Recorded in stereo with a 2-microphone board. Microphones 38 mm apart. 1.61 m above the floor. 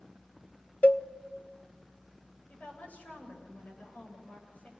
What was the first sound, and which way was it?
A cowbell, 45° left (ahead or behind).